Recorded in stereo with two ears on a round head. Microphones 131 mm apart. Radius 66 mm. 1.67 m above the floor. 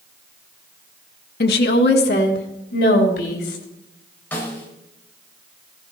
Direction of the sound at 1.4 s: 70° left (ahead or behind).